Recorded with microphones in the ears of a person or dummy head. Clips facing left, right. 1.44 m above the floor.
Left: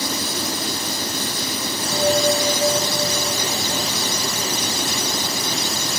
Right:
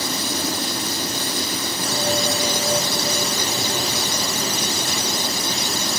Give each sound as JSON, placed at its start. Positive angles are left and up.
{"t": 1.9, "sound": "a bell", "side_deg": -70, "distance_m": 3.5}